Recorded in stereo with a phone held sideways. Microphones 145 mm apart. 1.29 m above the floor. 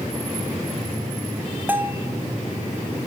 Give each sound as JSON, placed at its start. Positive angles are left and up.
{"t": 1.7, "sound": "a bell", "side_deg": -15, "distance_m": 1.9}